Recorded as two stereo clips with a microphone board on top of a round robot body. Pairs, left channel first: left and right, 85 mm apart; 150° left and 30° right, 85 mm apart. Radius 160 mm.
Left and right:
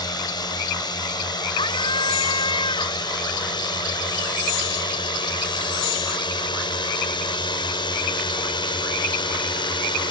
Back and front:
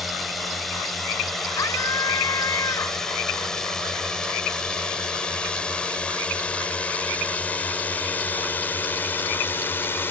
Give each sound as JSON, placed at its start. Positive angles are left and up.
{"t": 0.0, "sound": "a drone", "azimuth_deg": 60}
{"t": 1.6, "sound": "a scream", "azimuth_deg": 100}